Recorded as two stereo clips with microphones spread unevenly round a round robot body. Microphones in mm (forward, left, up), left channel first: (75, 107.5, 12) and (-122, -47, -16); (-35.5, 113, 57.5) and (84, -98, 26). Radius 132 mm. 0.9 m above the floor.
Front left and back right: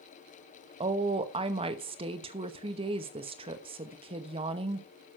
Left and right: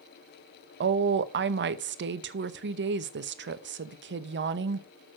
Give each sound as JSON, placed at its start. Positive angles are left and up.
{"t": 0.8, "sound": "a woman speaking", "azimuth_deg": -80, "distance_m": 0.9}